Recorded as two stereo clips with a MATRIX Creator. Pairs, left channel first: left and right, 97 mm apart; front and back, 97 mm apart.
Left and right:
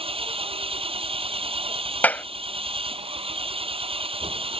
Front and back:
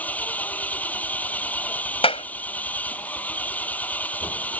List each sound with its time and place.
0.0 s an engine running: 75° right
2.0 s a clap: 15° left